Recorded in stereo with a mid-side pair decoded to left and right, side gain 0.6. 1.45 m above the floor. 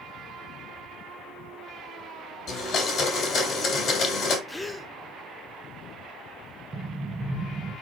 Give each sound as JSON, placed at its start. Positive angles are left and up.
{"t": 2.5, "sound": "a blender", "azimuth_deg": 45, "distance_m": 3.0}
{"t": 4.5, "sound": "a gasp", "azimuth_deg": 10, "distance_m": 0.6}
{"t": 6.7, "sound": "an explosion", "azimuth_deg": -20, "distance_m": 1.0}